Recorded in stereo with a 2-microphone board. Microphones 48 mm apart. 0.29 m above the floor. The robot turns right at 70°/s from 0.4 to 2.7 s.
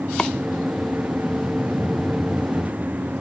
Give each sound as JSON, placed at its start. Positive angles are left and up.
{"t": 0.2, "sound": "chopping", "side_deg": 15}